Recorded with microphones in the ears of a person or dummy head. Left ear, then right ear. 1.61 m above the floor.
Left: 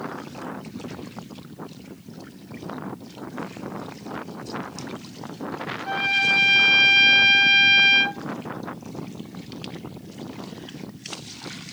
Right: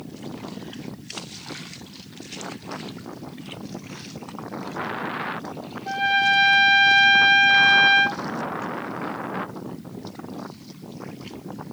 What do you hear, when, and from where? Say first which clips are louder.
5.8 s a trumpet: right 1 dB; 35° left (ahead or behind), 1.9 m